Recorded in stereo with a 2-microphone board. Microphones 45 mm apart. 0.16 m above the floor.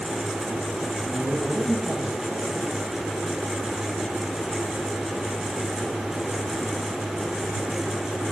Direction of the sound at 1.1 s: 35° right (ahead or behind).